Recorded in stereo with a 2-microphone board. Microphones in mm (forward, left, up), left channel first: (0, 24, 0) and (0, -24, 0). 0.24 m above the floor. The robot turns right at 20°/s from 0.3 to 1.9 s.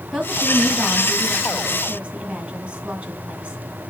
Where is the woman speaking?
165° right, 1.5 m; by 3.6 s 130° right, 1.5 m.